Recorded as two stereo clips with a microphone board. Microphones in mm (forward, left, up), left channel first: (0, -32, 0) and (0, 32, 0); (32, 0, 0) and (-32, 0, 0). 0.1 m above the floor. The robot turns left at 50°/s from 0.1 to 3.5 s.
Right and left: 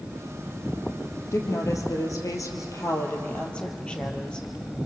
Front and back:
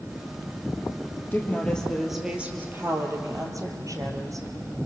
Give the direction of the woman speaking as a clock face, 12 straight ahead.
2 o'clock.